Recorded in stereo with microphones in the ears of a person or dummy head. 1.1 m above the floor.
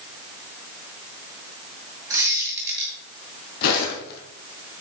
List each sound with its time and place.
2.1 s a squeak: 20° right (ahead or behind), 2.5 m
3.6 s footsteps: 50° left (ahead or behind), 1.9 m